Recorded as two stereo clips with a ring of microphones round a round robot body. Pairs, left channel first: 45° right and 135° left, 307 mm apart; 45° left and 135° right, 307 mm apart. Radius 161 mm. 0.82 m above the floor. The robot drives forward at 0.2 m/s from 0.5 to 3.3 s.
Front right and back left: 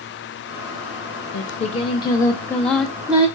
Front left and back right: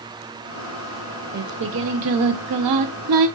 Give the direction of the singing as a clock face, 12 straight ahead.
3 o'clock.